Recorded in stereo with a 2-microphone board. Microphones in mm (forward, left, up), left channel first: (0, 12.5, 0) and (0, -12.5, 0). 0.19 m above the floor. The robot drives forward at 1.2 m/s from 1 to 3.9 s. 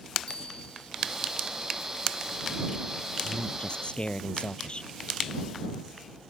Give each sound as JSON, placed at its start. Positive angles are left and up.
{"t": 0.3, "sound": "a bell", "side_deg": 40}
{"t": 3.2, "sound": "a man speaking", "side_deg": 45}